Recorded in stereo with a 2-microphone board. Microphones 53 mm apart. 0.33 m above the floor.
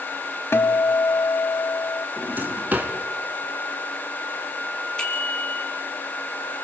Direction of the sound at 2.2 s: 35° right (ahead or behind).